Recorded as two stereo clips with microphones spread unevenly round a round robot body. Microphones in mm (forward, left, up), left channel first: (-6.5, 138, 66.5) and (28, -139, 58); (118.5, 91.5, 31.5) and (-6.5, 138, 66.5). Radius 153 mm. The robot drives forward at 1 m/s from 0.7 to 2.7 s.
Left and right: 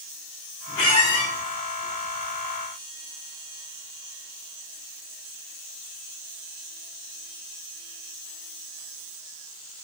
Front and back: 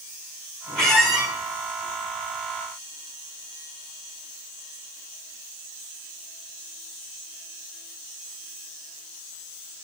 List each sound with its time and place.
0.8 s a squeak: 60° left, 2 m; by 1.3 s 75° left, 2.0 m